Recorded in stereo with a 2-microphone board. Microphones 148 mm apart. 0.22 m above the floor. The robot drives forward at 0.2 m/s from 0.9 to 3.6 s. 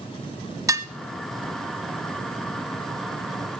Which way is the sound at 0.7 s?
20° right (ahead or behind).